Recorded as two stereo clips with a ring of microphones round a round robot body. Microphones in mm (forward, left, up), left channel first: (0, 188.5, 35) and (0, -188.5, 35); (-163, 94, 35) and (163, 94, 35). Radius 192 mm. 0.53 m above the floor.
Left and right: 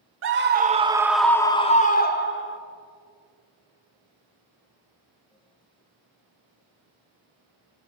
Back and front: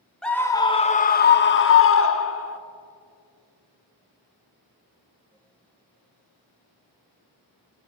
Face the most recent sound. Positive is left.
turn(degrees=140)